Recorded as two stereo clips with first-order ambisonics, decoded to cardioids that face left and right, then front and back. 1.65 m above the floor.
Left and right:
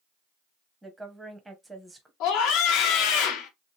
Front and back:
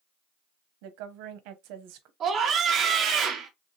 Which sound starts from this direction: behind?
A woman speaking, at 0.8 s.